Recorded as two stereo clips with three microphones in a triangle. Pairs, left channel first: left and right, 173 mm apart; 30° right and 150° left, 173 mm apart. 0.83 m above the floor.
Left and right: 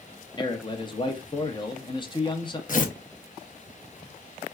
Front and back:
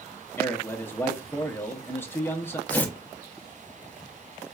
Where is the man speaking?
40° left, 0.6 m.